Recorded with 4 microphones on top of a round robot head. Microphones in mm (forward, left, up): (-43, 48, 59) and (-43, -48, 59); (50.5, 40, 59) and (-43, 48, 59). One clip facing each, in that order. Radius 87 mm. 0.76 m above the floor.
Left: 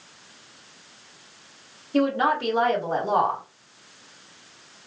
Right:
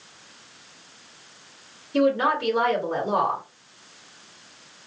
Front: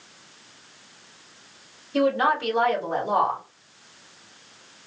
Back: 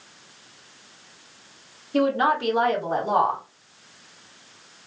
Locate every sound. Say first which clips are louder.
1.9 s a woman speaking: right 1 dB, even; 135° left, 1.4 m